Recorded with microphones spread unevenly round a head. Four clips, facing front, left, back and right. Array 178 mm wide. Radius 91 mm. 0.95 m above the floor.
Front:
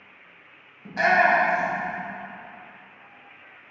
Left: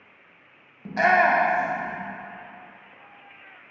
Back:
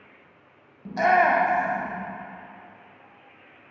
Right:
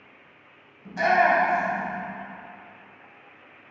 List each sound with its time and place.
0.8 s a shout: 105° left, 1.0 m; by 1.9 s 135° right, 1.4 m